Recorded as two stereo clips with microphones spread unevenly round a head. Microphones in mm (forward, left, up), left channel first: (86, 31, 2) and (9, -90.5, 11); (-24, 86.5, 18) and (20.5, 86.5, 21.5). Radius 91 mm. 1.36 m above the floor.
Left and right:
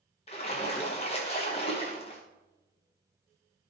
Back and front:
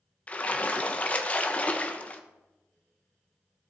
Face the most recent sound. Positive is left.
turn(degrees=120)